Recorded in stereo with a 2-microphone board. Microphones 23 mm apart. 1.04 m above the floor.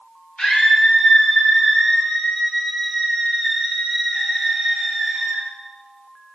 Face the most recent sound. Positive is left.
turn(degrees=-25)  # may be behind; listen again after turning